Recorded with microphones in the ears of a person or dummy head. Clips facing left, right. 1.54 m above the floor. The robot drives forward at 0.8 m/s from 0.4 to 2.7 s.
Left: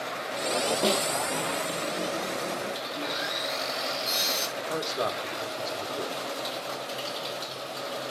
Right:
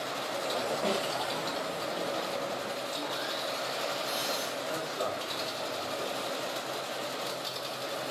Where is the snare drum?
50° left (ahead or behind), 2.5 m; by 1.1 s 55° left (ahead or behind), 2.5 m.